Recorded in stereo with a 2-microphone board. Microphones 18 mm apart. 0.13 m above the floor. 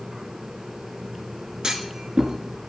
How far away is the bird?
No bird in this recording.